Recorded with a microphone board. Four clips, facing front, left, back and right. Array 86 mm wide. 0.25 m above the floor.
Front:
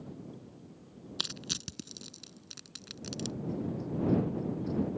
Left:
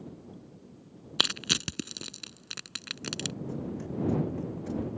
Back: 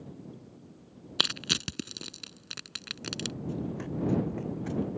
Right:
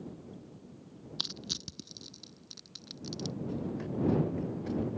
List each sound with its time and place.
1.2 s crushing: 125° left
3.4 s running footsteps: 160° right; by 4.9 s 175° right